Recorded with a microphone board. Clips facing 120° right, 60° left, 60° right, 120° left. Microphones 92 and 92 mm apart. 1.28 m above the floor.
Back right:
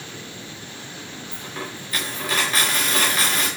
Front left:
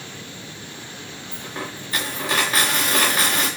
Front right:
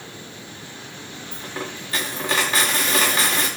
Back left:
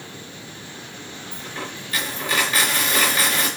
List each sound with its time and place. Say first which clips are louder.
1.3 s a dropped coin: front left 2 dB, front right 2 dB; 5° right, 7.5 m